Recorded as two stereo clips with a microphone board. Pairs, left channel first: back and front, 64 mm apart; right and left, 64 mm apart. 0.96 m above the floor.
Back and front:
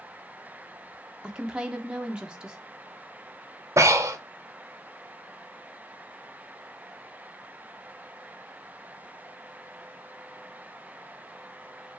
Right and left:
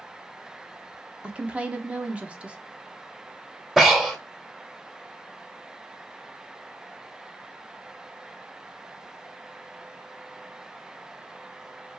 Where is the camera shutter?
No camera shutter in this recording.